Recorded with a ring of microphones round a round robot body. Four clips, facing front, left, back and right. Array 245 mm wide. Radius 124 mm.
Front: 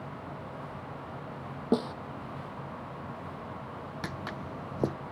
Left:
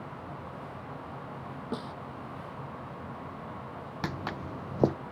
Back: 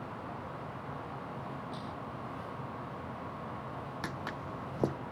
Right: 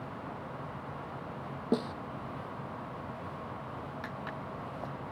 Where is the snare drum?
25° right.